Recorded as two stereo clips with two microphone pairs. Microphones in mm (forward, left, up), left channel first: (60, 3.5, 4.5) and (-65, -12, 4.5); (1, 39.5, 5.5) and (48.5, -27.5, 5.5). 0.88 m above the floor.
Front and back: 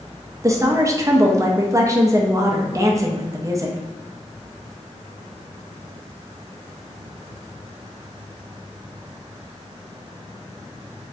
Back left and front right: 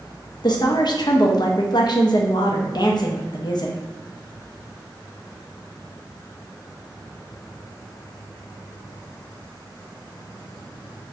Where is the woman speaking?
125° left, 0.5 m.